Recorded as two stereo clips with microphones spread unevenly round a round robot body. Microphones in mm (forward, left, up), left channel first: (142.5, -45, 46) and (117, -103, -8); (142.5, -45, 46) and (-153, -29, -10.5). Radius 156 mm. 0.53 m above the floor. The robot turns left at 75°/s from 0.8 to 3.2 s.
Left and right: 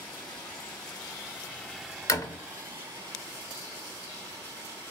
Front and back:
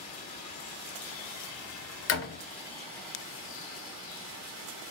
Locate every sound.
0.0 s running water: 40° left, 2.5 m; by 4.9 s 140° right, 2.5 m
2.1 s a door slam: 25° right, 0.8 m; by 2.4 s 50° right, 0.8 m